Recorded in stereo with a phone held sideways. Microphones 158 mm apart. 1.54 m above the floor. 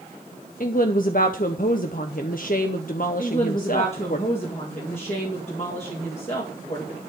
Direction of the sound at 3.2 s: 45° left (ahead or behind).